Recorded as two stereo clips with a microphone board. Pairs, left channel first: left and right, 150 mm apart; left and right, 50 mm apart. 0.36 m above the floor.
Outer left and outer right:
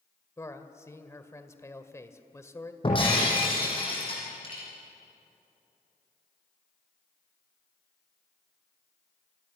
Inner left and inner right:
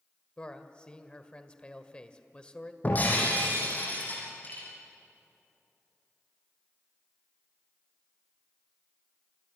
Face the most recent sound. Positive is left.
turn(degrees=35)  # may be behind; listen again after turning